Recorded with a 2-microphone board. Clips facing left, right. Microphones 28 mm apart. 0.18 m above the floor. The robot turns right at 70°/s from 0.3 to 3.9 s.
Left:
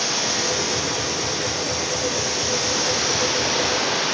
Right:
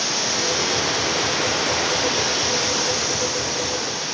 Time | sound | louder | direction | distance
0.0 | running water | even | 170° right | 9.5 m